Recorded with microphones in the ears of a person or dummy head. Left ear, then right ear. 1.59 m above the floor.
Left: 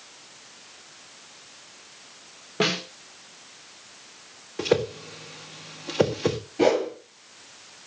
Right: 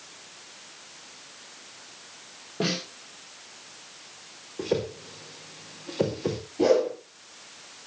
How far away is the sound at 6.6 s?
About 7 m.